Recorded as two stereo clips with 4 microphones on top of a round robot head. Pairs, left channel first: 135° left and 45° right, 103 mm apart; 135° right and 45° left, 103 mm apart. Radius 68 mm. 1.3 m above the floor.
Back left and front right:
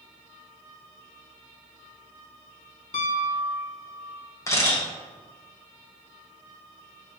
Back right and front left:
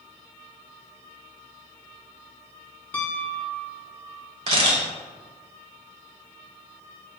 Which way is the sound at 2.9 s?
155° left.